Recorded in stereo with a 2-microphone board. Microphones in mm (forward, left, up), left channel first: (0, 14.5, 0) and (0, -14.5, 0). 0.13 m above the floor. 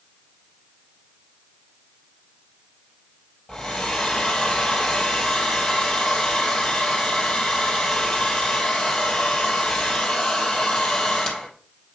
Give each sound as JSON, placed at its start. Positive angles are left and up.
{"t": 3.5, "sound": "a hair dryer", "side_deg": 30, "distance_m": 3.0}